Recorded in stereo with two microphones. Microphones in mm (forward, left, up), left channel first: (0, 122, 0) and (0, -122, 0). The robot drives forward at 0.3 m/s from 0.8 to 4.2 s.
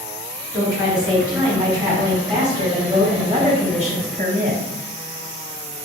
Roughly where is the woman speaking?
Centre.